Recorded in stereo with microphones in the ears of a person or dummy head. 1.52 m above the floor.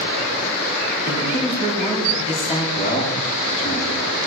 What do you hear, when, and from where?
1.1 s a man speaking: 35° left (ahead or behind), 4 m
2.8 s a man speaking: 40° left (ahead or behind), 8 m